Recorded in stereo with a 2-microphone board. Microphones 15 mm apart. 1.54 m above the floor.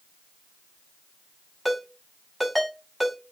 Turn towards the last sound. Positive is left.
turn(degrees=0)  # may be behind; listen again after turning